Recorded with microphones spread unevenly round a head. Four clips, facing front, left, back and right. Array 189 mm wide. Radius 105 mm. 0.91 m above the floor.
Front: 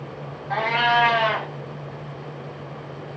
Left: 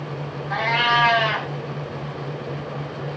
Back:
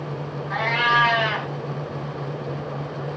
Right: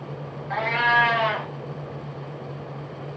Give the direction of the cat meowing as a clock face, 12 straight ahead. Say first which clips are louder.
Left 1 dB, front 1 dB; 1 o'clock.